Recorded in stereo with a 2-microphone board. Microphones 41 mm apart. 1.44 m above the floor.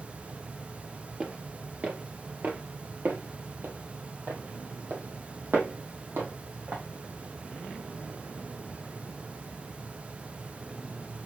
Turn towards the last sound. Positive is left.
turn(degrees=-60)  # may be behind; listen again after turning